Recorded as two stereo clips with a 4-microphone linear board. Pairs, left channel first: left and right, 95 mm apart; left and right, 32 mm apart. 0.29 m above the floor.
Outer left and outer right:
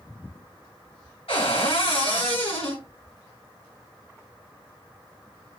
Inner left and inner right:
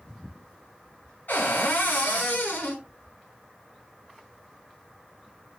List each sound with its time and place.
1.3 s a cupboard door: 75° left (ahead or behind), 1.1 m